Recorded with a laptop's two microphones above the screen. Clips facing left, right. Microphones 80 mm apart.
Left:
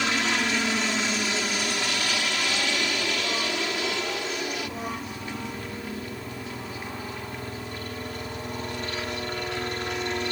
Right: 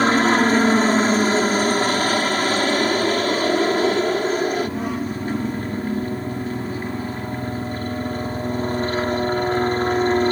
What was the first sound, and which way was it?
A helicopter, 45° right (ahead or behind).